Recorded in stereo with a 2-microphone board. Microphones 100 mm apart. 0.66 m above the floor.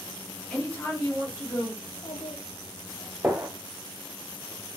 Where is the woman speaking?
10° left (ahead or behind), 1.2 m; by 1.7 s 40° left (ahead or behind), 2.0 m.